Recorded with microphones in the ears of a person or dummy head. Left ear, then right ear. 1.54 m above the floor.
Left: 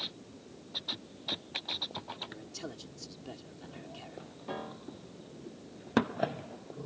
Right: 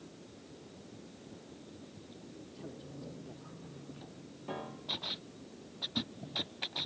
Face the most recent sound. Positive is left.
turn(degrees=0)  # may be behind; listen again after turning